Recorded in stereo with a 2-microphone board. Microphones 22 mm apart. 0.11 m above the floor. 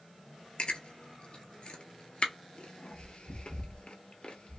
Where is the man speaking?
No man speaking in this recording.